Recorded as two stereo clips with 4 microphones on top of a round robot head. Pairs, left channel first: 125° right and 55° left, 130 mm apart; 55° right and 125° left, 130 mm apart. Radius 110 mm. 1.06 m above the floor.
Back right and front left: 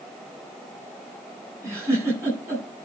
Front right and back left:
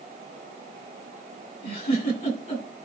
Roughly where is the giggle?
Ahead.